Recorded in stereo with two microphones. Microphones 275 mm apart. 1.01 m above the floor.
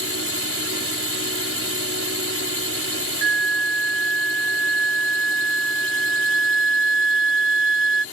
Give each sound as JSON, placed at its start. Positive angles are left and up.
{"t": 0.0, "sound": "a drone", "side_deg": -50}
{"t": 3.2, "sound": "a flute", "side_deg": -45}